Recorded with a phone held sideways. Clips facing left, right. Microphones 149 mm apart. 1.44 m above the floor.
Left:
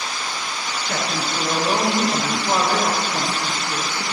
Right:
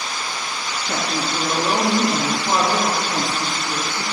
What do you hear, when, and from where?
0.9 s a woman speaking: 60° right (ahead or behind), 3 m